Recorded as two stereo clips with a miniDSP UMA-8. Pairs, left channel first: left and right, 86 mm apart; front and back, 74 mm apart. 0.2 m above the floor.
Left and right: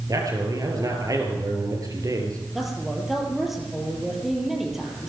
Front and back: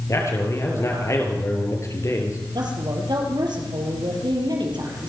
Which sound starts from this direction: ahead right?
A man speaking, at 0.1 s.